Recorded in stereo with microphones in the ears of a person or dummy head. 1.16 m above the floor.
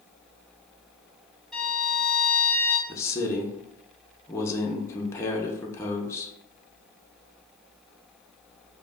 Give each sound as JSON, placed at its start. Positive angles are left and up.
{"t": 1.5, "sound": "a violin", "side_deg": 0, "distance_m": 2.0}
{"t": 2.9, "sound": "a man speaking", "side_deg": 10, "distance_m": 0.6}